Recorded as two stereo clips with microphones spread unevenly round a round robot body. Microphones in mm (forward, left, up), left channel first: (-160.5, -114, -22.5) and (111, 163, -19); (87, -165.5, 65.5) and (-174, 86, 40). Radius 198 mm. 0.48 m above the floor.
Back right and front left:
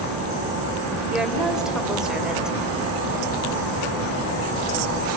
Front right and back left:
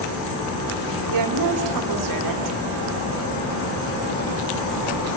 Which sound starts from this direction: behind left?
A woman speaking, at 1.1 s.